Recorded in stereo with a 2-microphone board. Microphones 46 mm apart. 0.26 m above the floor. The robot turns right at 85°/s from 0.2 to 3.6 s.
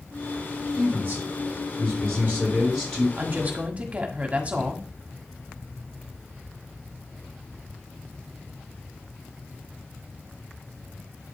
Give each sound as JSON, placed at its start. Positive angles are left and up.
{"t": 0.8, "sound": "a man speaking", "azimuth_deg": -165, "distance_m": 5.0}
{"t": 3.2, "sound": "a woman speaking", "azimuth_deg": -80, "distance_m": 1.5}